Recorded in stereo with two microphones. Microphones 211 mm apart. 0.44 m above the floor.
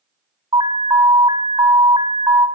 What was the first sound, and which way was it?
An alarm, 25° right (ahead or behind).